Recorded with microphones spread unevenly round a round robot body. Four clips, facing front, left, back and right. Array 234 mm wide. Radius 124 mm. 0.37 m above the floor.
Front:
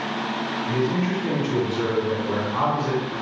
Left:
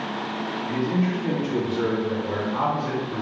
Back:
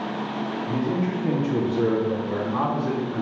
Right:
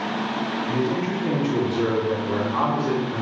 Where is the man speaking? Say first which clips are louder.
Left 1 dB, front 2 dB; straight behind, 1.6 m; by 3.2 s 165° right, 3 m.